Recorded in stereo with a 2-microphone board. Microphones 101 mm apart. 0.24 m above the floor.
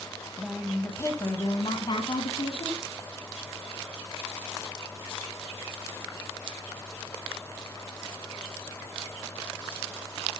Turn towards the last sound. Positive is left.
turn(degrees=65)  # may be behind; listen again after turning